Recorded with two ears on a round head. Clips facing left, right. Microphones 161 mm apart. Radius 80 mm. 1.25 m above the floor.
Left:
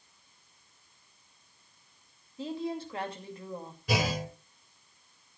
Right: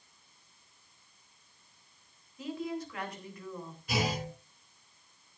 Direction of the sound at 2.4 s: 25° left (ahead or behind).